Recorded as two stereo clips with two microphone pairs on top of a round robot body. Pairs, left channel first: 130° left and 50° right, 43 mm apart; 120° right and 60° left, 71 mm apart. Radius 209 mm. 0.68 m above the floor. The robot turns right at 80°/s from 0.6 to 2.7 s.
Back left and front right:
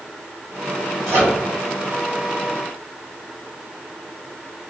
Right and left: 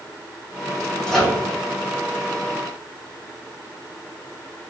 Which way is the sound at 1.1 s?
45° right.